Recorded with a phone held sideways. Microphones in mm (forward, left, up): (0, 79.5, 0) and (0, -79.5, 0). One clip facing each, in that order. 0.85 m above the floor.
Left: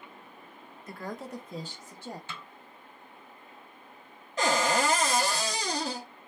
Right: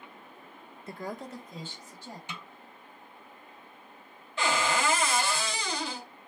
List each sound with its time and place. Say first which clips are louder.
0.9 s a woman speaking: even; 30° right (ahead or behind), 0.5 m; by 2.2 s 60° left (ahead or behind), 1.0 m
2.3 s a snare drum: right 1 dB; 15° right (ahead or behind), 0.5 m
4.4 s a cupboard door: left 2 dB; 40° left (ahead or behind), 0.7 m